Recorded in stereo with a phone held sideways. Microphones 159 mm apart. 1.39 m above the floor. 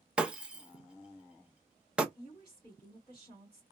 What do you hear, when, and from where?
0.2 s breaking glass: 5° right (ahead or behind), 0.6 m
2.1 s a woman speaking: 30° left (ahead or behind), 2.5 m